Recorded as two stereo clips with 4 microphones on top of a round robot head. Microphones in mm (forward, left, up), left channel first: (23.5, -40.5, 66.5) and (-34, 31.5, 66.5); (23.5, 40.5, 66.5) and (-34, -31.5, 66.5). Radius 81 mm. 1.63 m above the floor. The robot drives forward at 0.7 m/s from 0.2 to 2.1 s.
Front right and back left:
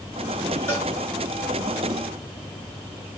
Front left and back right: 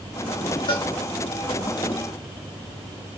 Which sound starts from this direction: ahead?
A cowbell, at 0.7 s.